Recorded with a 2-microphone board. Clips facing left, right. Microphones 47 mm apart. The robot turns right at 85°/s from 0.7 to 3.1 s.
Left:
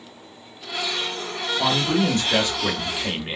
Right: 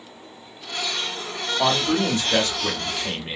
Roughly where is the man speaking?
Centre.